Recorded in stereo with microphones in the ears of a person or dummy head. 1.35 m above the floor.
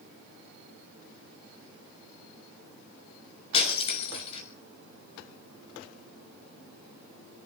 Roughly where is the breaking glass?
Left.